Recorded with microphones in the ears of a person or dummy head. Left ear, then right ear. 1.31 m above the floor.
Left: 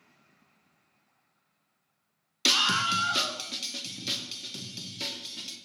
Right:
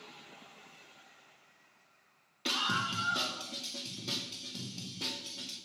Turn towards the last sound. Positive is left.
turn(degrees=70)  # may be behind; listen again after turning